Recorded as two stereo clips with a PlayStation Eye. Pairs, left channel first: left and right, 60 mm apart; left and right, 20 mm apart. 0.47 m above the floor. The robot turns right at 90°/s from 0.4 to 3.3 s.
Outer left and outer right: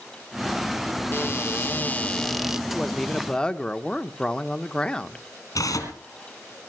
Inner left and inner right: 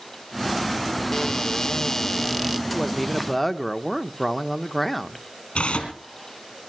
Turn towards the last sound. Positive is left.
turn(degrees=65)  # may be behind; listen again after turning